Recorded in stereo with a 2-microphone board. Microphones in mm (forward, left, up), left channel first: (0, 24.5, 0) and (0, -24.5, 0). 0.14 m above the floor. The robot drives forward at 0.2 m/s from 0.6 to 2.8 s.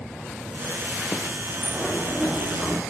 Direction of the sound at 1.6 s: 30° left (ahead or behind).